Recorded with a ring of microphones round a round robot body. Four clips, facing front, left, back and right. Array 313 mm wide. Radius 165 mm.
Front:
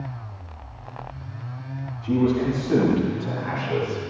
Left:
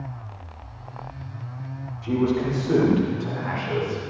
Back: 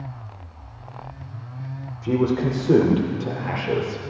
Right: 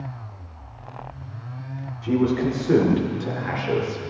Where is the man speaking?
165° right, 2.5 m; by 4.0 s 135° right, 2.5 m.